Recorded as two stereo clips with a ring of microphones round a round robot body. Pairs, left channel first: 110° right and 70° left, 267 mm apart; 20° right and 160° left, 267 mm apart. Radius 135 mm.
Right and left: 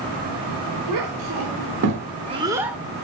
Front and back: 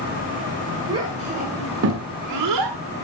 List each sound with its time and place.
0.9 s a child speaking: 85° left, 1.9 m; by 2.8 s 155° left, 1.6 m